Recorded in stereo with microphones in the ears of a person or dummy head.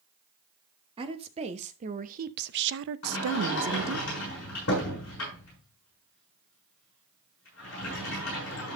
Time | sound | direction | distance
1.0 | a woman speaking | 35° right (ahead or behind) | 1.6 m
3.0 | a sliding door | 60° left (ahead or behind) | 6.5 m